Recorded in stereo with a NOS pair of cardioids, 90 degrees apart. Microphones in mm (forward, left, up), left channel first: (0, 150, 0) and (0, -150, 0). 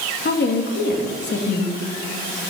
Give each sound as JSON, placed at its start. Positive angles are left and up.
{"t": 0.2, "sound": "a woman speaking", "azimuth_deg": 35, "distance_m": 2.5}